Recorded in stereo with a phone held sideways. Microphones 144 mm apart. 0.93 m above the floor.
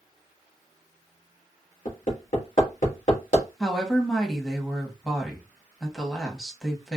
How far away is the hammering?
About 1.6 m.